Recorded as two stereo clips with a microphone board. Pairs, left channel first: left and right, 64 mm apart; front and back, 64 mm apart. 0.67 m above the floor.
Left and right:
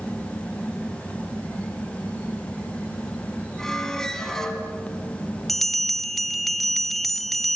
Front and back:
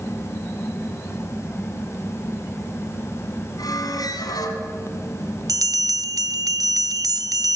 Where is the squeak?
5° left, 3 m.